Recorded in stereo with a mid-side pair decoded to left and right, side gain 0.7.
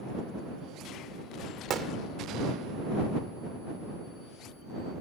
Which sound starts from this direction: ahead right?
A gunshot, at 1.7 s.